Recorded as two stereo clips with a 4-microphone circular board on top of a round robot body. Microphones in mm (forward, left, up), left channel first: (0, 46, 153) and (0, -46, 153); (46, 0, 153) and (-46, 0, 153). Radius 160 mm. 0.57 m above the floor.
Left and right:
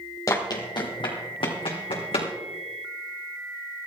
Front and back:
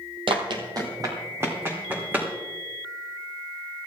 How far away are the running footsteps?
About 1.6 m.